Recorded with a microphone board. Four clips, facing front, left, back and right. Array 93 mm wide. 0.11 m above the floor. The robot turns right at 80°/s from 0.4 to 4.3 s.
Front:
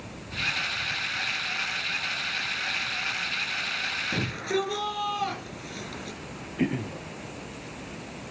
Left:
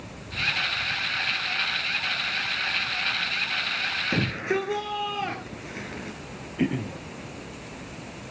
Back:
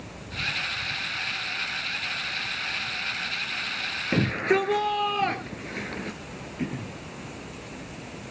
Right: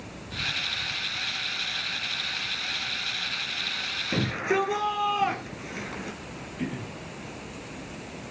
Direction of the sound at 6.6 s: 50° left.